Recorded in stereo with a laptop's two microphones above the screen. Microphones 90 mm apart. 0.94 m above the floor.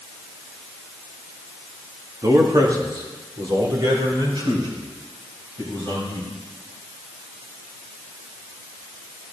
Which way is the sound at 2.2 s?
35° right (ahead or behind).